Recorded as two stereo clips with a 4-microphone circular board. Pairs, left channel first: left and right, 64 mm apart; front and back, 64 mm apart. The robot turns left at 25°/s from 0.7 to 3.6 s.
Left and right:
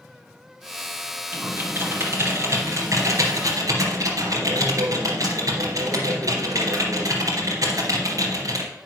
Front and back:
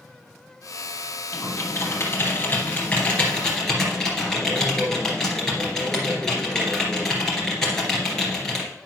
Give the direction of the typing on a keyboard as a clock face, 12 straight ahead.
1 o'clock.